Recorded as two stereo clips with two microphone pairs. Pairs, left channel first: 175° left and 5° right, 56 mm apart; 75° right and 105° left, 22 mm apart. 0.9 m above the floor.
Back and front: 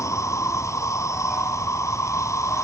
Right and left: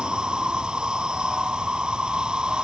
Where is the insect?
155° left.